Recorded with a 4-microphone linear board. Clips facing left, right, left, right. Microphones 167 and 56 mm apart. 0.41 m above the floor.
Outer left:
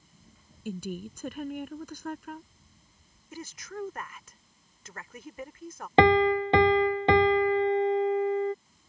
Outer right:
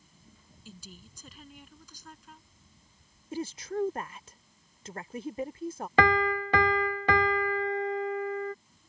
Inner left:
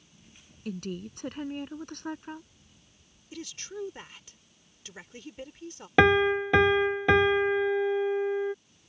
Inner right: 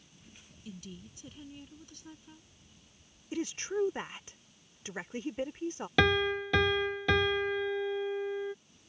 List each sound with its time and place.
0.7 s a woman speaking: 65° left (ahead or behind)
3.3 s a woman speaking: 30° right (ahead or behind)
6.0 s a piano: 25° left (ahead or behind)